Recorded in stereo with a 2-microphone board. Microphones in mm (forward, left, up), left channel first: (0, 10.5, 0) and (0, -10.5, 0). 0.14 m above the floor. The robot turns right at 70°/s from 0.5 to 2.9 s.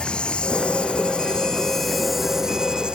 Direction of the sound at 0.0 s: 70° left.